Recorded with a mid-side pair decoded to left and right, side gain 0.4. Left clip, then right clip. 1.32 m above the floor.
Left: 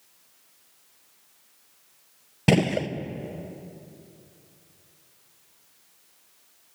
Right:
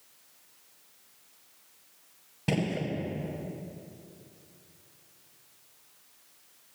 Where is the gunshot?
70° left, 0.7 m.